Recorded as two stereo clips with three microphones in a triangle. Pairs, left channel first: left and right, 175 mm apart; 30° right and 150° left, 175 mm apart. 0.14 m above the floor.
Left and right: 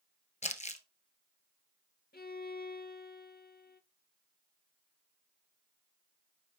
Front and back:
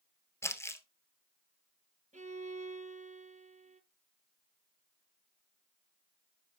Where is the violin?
110° left, 0.7 m.